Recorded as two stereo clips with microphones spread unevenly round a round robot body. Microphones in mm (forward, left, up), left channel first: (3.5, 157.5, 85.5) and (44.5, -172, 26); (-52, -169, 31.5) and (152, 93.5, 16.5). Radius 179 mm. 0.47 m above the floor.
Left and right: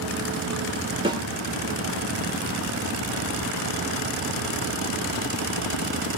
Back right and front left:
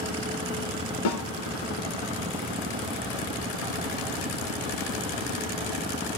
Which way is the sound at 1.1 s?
150° right.